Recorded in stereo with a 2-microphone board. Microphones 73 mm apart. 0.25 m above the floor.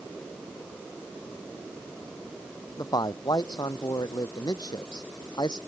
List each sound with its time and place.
2.8 s a man speaking: 65° left (ahead or behind); by 5.6 s 75° left (ahead or behind)